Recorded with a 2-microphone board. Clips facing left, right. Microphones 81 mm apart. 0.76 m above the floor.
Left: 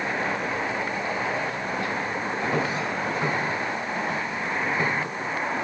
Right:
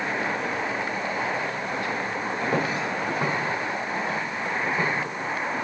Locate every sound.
2.4 s footsteps: 50° right (ahead or behind), 1.5 m; by 4.9 s 65° right (ahead or behind), 3.5 m